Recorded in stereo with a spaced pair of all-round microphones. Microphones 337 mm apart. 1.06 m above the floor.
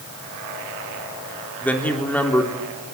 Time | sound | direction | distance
1.6 | a man speaking | 5° left (ahead or behind) | 3.5 m